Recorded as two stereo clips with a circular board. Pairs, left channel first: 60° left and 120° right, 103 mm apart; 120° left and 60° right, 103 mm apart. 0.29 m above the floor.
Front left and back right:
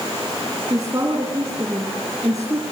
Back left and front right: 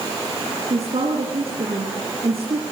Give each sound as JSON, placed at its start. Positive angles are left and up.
{"t": 0.7, "sound": "a woman speaking", "azimuth_deg": -65, "distance_m": 3.0}